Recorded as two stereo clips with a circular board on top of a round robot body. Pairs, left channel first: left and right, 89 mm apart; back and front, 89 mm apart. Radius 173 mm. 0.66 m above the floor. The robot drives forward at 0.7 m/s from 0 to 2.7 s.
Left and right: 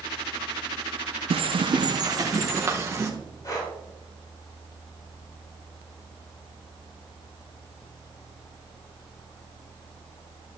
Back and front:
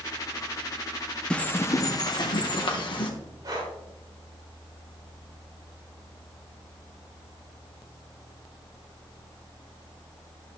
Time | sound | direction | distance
1.3 | a bird | 100° right | 0.6 m
3.4 | breathing | 40° left | 3.5 m